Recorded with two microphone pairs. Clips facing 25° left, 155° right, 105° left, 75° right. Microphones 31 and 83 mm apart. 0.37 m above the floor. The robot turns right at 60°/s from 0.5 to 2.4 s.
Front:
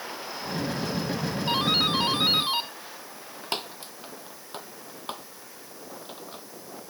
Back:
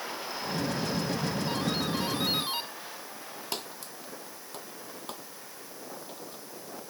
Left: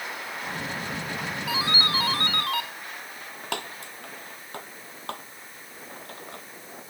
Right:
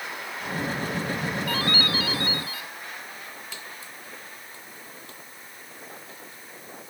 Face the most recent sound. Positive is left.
turn(degrees=75)